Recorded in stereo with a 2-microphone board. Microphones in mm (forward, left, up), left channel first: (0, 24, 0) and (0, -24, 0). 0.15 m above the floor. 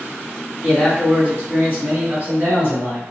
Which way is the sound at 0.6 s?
25° right (ahead or behind).